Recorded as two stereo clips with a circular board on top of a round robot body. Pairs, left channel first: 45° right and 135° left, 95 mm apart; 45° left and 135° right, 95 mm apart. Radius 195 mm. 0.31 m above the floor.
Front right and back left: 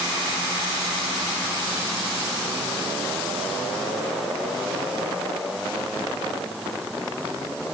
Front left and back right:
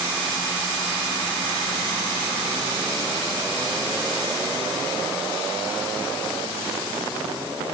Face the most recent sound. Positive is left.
No sound to turn to.